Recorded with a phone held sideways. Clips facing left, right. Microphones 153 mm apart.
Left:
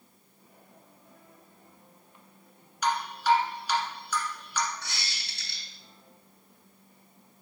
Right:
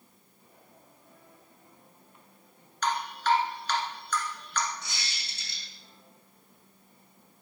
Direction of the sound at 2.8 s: 10° left (ahead or behind).